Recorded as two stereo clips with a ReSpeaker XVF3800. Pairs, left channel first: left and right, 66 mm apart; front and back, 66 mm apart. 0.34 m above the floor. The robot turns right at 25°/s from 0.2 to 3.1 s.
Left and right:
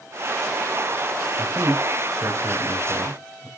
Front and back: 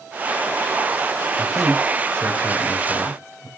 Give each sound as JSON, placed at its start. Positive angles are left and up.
{"t": 1.4, "sound": "a man speaking", "azimuth_deg": -90, "distance_m": 1.4}